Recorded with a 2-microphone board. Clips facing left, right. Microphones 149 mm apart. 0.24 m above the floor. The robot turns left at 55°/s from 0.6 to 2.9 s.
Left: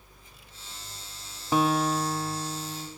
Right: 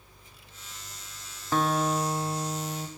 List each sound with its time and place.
1.5 s a guitar: 15° left, 0.7 m; by 2.9 s 60° right, 0.7 m